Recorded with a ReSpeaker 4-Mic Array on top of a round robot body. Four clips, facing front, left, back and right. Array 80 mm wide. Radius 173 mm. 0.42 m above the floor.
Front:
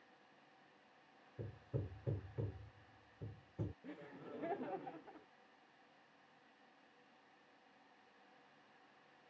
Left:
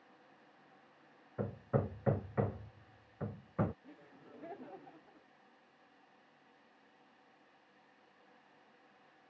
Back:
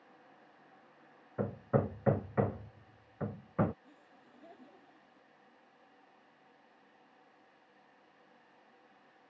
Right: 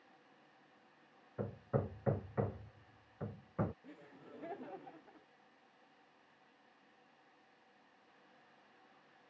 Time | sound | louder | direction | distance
1.4 | hammering | left 3 dB, back 16 dB | 170° left | ?
3.8 | laughter | right 1 dB, front 8 dB | 10° right | ?